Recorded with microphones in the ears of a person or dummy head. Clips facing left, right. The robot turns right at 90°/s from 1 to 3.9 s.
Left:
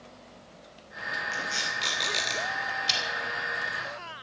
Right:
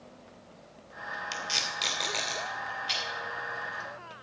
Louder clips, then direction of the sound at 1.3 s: Left 1 dB; 65° right (ahead or behind).